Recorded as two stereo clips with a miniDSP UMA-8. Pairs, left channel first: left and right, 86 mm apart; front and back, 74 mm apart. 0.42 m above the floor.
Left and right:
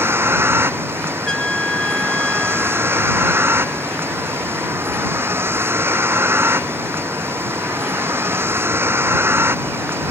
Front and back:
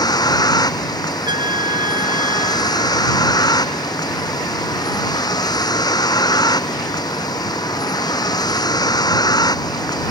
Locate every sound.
0.0 s a vehicle: 30° right
1.2 s a trumpet: 170° left